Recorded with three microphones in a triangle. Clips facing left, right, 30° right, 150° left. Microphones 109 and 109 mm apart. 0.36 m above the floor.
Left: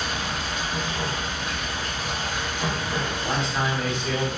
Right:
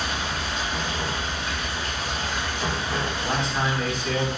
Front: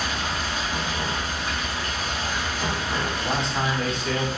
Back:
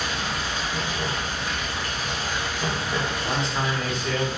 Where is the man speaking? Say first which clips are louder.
Even, front 1 dB; 25° left, 1.9 m.